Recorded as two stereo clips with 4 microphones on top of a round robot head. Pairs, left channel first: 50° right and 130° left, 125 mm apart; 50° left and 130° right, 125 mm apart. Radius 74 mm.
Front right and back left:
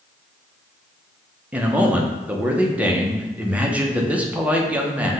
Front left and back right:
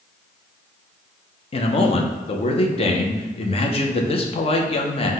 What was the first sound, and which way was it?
A man speaking, 50° left.